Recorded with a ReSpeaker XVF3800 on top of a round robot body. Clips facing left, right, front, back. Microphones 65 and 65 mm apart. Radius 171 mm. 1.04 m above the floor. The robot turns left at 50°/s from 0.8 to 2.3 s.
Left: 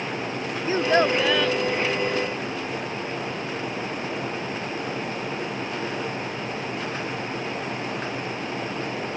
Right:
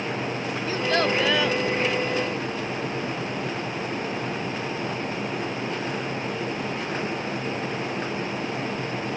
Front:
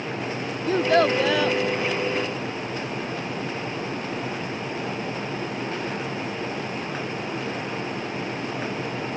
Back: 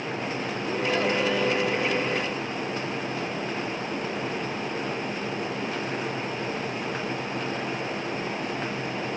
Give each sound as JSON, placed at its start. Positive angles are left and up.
{"t": 0.7, "sound": "a child speaking", "azimuth_deg": 25}